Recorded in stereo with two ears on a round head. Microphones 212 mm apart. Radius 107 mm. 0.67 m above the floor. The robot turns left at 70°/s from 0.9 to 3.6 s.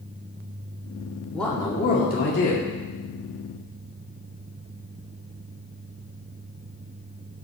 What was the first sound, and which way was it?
A man speaking, straight behind.